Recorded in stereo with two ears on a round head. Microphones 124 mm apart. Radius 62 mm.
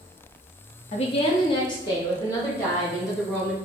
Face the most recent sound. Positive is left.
turn(degrees=20)  # may be behind; listen again after turning